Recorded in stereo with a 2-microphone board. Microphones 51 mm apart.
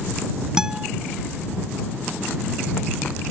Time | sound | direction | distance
0.6 | a guitar | 10° right (ahead or behind) | ?